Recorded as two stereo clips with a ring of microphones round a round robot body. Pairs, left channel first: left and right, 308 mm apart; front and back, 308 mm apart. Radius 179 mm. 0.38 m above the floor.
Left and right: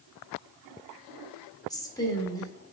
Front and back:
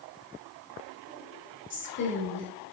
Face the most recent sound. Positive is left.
turn(degrees=20)